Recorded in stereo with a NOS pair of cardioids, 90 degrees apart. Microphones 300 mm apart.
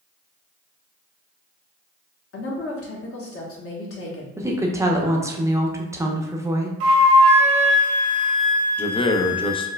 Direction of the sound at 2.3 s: 50° left.